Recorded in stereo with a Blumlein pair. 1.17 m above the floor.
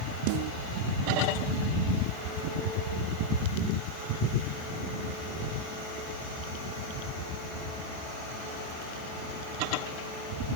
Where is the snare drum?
45° right.